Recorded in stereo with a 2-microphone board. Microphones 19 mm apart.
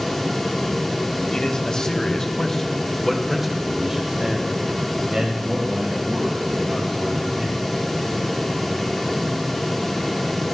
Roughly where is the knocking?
I don't hear knocking.